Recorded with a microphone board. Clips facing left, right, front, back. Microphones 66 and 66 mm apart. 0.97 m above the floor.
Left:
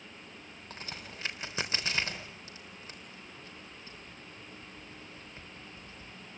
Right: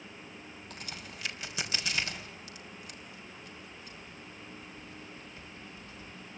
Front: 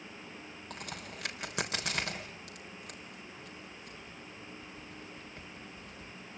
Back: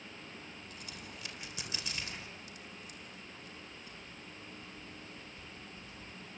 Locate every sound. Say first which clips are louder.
0.7 s a crack: left 2 dB, front 5 dB; 30° left, 3.5 m